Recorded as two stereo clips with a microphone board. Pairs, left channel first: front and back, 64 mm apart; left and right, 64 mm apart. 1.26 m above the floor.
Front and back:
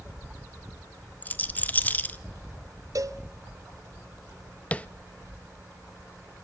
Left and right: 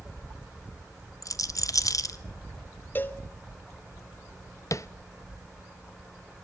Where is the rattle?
60° left, 1.1 m.